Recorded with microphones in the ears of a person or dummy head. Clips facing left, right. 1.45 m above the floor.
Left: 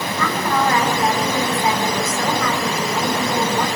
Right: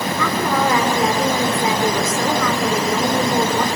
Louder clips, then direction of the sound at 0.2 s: Even; 75° right (ahead or behind).